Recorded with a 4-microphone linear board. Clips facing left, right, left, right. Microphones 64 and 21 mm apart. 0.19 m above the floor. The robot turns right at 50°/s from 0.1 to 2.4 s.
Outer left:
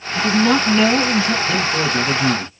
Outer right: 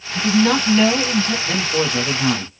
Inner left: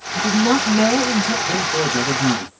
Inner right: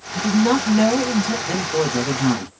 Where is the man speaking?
155° right, 1.4 m; by 2.5 s 105° right, 1.4 m.